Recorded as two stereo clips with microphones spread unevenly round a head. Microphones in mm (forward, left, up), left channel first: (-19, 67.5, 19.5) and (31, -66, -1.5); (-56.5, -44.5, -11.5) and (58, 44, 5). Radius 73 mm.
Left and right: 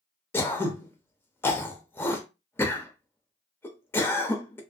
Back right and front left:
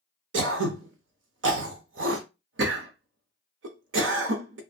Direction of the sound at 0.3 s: 35° left.